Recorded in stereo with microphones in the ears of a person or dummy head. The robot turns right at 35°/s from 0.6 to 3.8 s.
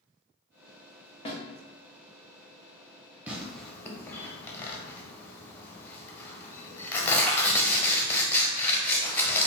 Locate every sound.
1.2 s a snare drum: 30° left (ahead or behind), 0.9 m; by 1.4 s 25° left (ahead or behind), 0.9 m
3.3 s tearing paper: 10° right (ahead or behind), 0.6 m; by 9.5 s 10° left (ahead or behind), 0.6 m